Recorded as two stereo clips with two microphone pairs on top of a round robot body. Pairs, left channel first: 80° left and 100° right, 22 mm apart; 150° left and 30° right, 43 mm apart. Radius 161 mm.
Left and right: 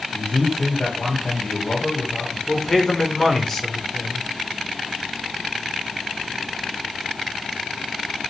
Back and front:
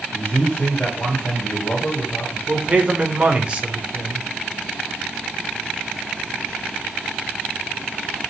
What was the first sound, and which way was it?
A man speaking, 80° left.